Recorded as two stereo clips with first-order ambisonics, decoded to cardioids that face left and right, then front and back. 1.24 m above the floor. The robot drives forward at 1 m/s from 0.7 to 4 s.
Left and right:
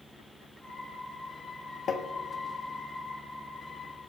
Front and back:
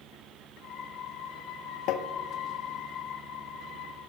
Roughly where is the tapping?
Ahead left.